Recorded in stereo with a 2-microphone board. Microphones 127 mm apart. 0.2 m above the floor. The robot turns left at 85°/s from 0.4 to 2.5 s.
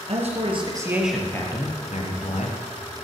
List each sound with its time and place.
0.1 s a man speaking: 120° right, 4 m; by 2.6 s 65° left, 4 m